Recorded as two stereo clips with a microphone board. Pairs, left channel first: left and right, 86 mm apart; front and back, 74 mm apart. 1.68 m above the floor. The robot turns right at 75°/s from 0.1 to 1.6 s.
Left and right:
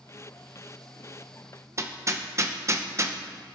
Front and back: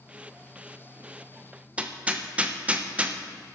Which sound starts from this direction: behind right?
Hammering, at 1.8 s.